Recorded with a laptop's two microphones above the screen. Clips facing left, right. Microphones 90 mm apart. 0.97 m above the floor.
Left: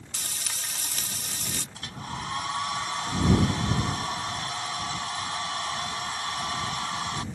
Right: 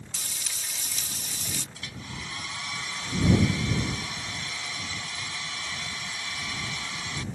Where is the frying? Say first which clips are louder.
Left 5 dB; 55° left (ahead or behind).